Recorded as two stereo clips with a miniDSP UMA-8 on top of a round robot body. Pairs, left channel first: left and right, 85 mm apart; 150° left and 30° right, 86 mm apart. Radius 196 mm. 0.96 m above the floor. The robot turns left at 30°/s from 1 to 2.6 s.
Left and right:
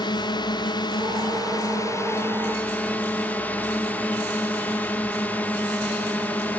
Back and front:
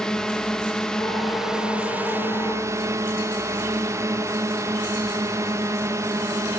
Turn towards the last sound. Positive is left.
turn(degrees=20)